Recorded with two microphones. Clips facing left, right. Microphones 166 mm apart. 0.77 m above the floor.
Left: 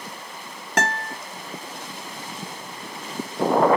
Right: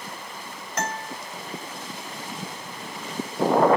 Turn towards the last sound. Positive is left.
turn(degrees=80)